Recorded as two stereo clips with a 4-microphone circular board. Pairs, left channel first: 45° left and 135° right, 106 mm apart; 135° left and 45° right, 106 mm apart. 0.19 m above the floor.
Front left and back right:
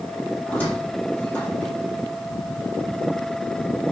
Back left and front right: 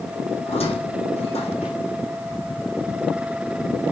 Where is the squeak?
120° left, 4 m.